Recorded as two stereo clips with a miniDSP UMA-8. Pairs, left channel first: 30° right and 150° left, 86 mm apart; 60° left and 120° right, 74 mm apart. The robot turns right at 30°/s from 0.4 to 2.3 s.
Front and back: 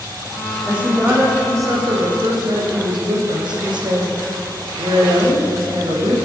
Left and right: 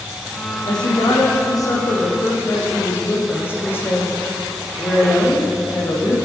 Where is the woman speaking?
70° left, 5 m; by 6.2 s 120° left, 5 m.